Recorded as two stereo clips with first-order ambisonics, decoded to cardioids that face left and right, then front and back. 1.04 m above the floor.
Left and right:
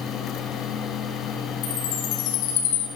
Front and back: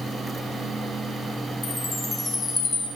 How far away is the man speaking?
I don't hear a man speaking.